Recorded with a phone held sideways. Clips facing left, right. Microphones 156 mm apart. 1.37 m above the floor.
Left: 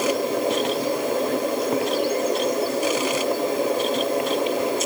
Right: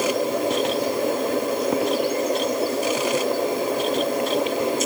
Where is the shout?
I don't hear a shout.